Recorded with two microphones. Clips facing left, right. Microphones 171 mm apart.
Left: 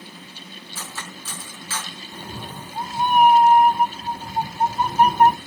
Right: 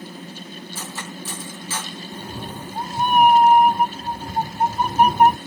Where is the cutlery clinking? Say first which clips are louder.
Right 2 dB; 15° right (ahead or behind), 5 m.